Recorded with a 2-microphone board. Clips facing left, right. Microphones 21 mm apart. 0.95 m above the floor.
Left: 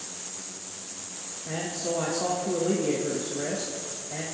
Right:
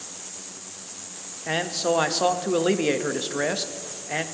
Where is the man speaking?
70° right (ahead or behind), 0.9 m.